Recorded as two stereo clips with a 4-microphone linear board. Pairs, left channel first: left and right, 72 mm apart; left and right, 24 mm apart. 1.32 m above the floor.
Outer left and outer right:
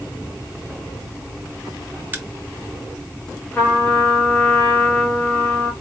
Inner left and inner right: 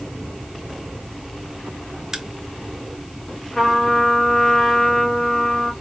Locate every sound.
2.1 s a crack: 25° right (ahead or behind), 0.7 m
3.5 s a trumpet: 20° left (ahead or behind), 1.6 m